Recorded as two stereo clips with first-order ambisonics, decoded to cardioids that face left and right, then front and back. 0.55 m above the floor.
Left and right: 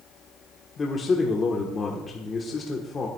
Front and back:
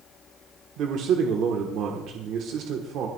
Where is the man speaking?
155° left, 1.3 m.